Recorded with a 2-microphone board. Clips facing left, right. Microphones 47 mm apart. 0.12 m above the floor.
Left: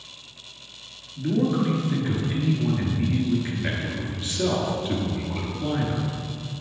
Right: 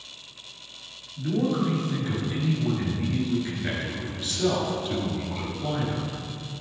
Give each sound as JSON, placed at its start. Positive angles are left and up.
{"t": 1.2, "sound": "a man speaking", "side_deg": 25, "distance_m": 1.9}